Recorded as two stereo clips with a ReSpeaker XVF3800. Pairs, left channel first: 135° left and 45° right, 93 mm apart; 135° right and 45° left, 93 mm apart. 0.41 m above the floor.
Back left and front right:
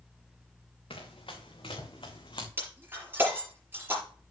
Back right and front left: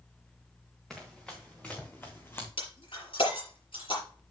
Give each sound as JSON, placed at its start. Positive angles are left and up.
{"t": 0.9, "sound": "running footsteps", "azimuth_deg": 140, "distance_m": 3.0}
{"t": 2.6, "sound": "breaking glass", "azimuth_deg": -110, "distance_m": 5.0}